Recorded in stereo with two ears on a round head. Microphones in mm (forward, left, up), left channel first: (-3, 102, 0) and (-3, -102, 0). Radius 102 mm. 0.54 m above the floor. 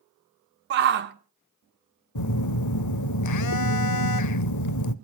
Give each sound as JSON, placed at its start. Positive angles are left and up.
{"t": 0.7, "sound": "a shout", "side_deg": -45, "distance_m": 1.5}
{"t": 2.1, "sound": "a phone buzzing", "side_deg": 85, "distance_m": 0.7}